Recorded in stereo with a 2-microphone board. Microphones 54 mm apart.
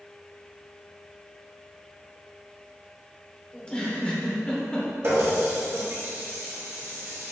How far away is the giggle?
About 0.9 m.